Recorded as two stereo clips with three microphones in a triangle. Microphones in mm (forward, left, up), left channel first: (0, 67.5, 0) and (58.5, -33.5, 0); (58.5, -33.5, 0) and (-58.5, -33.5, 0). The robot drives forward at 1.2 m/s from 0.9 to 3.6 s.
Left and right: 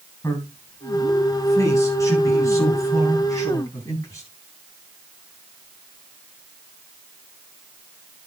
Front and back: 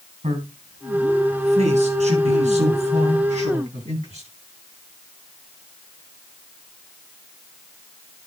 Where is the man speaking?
Straight behind, 4.5 m.